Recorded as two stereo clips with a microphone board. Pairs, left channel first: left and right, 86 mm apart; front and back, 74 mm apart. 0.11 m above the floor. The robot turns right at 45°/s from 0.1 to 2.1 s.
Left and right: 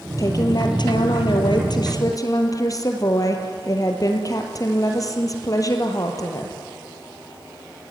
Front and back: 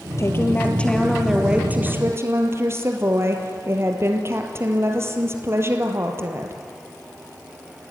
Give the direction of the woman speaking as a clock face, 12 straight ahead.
10 o'clock.